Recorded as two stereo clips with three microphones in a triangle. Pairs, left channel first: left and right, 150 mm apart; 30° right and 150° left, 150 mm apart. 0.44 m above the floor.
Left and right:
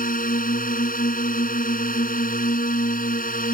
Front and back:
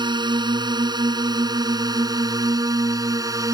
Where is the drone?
90° left; by 3.5 s 85° left.